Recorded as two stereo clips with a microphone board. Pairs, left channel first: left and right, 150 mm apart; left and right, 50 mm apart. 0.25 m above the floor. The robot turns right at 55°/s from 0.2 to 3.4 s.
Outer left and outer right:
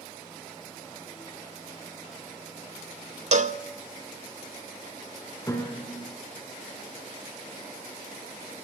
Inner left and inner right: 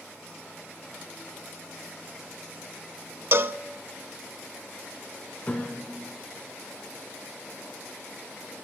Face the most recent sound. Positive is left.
turn(degrees=20)  # may be behind; listen again after turning